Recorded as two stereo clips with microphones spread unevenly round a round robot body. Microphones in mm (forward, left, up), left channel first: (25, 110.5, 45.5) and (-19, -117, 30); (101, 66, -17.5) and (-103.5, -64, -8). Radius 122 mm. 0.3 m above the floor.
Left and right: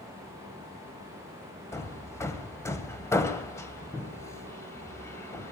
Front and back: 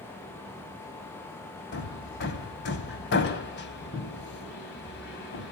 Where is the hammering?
Straight ahead, 1.8 m.